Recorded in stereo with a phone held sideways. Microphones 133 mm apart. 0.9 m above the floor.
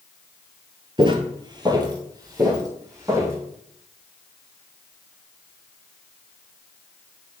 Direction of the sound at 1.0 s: 40° right (ahead or behind).